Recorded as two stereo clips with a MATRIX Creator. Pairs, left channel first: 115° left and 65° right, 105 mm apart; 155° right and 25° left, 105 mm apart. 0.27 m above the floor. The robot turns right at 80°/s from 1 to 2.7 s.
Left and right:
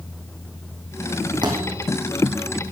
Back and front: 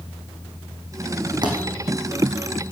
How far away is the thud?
About 3.5 m.